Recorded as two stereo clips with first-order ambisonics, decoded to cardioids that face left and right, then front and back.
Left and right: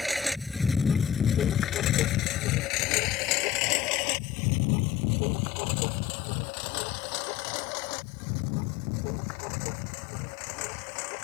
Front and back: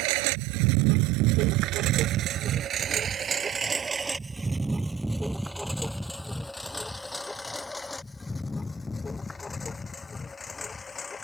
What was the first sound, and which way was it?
A lawn mower, straight behind.